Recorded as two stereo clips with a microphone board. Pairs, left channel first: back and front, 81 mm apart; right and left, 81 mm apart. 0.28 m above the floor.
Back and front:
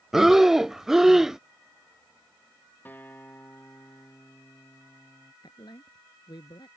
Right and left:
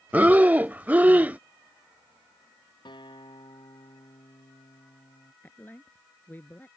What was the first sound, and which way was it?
Breathing, 75° left.